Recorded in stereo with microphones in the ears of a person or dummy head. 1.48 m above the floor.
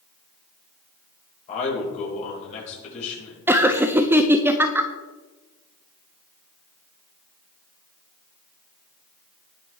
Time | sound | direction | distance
1.5 | a man speaking | 45° left (ahead or behind) | 5.5 m
3.5 | laughter | 20° right (ahead or behind) | 0.6 m